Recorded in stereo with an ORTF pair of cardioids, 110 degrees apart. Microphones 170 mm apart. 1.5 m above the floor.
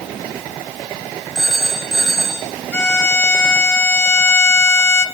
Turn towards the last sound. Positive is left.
turn(degrees=15)